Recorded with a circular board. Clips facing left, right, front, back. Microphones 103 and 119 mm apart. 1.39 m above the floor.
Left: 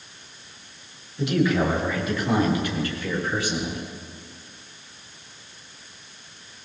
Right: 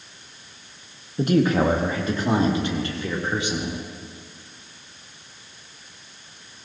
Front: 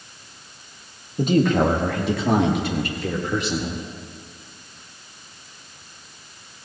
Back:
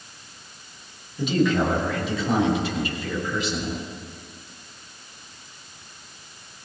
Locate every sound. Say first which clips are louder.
1.2 s a man speaking: right 3 dB, front 3 dB; 45° right, 1.7 m; by 3.8 s 20° right, 4 m